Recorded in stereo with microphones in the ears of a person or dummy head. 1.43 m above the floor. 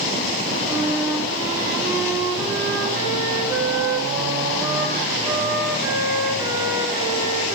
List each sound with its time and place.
0.7 s a flute: 15° right (ahead or behind), 3.5 m